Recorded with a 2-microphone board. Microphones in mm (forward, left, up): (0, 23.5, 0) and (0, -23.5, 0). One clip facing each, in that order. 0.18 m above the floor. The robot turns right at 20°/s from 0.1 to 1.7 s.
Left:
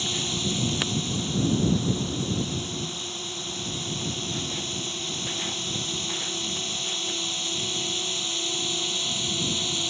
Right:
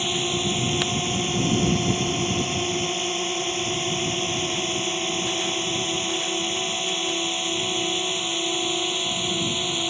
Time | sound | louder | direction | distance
0.0 | a drone | right 4 dB | 30° right (ahead or behind) | ?